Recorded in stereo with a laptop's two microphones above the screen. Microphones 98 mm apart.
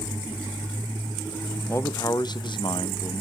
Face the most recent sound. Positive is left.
turn(degrees=65)  # may be behind; listen again after turning